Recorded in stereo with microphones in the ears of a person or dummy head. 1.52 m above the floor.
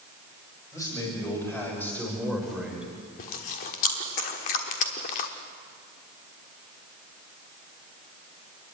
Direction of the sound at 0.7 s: 20° left (ahead or behind).